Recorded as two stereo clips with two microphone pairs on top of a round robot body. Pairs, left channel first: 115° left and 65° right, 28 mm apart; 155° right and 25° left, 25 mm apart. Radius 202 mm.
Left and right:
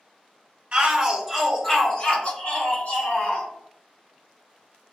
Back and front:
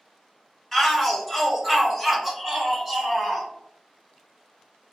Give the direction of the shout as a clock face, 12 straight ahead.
3 o'clock.